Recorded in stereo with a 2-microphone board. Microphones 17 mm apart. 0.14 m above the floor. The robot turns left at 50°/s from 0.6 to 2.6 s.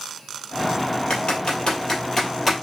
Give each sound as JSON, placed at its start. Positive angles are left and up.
{"t": 1.1, "sound": "typing on a keyboard", "side_deg": 60, "distance_m": 1.9}